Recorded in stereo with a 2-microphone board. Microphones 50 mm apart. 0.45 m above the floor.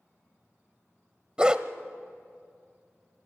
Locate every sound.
1.4 s a dog barking: 20° right (ahead or behind), 0.8 m